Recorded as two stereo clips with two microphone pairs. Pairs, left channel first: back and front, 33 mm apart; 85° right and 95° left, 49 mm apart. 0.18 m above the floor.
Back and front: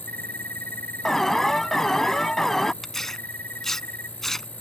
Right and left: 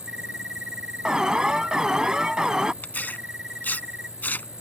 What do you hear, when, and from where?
0.0 s an insect: 175° left
1.1 s an alarm: 140° left
2.8 s tearing paper: 115° right